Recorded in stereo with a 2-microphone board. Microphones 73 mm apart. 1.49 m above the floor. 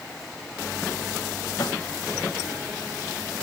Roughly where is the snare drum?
Left.